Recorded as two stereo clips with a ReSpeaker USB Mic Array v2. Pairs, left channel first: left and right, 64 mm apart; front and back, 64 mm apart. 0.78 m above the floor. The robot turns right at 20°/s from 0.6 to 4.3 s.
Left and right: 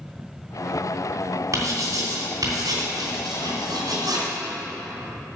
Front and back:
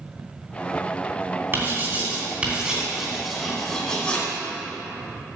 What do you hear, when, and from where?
1.5 s writing: 125° right, 3 m; by 4.3 s 70° right, 3 m